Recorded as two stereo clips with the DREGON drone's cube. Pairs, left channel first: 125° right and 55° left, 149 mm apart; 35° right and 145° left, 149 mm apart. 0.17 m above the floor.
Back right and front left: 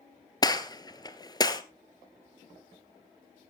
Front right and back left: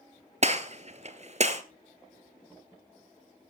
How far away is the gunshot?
About 0.9 m.